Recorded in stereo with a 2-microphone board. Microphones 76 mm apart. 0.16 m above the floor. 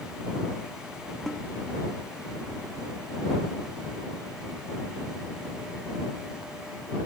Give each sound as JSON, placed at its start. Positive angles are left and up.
{"t": 1.3, "sound": "a snare drum", "side_deg": 5}